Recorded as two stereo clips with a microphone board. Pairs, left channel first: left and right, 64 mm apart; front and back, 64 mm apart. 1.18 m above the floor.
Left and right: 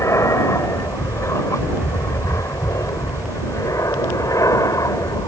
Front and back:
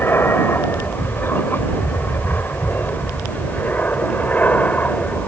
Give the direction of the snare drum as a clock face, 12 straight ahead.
No snare drum in this recording.